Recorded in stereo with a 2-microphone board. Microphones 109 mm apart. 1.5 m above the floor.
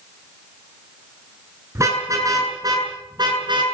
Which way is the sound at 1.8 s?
25° right (ahead or behind).